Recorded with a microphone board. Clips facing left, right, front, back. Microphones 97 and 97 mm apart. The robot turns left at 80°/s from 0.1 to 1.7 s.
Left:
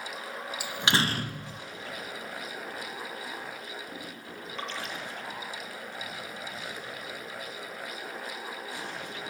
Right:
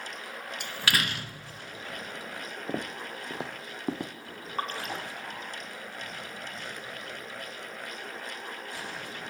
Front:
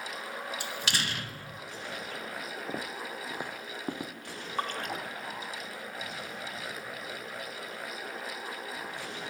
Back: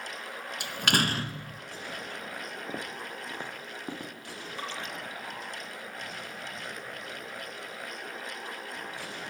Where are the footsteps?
85° right, 1.8 m; by 4.1 s 75° right, 3 m.